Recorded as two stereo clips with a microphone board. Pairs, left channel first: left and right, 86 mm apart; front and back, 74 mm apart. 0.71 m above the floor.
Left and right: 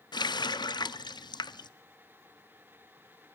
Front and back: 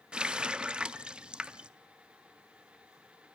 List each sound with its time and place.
0.1 s a running tap: 105° left, 0.6 m